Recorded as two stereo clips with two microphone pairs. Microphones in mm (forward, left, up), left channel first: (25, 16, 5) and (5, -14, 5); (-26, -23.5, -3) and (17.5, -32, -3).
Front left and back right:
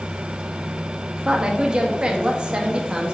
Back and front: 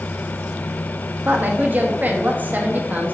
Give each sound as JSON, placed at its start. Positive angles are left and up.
{"t": 1.2, "sound": "a woman speaking", "azimuth_deg": -60, "distance_m": 1.3}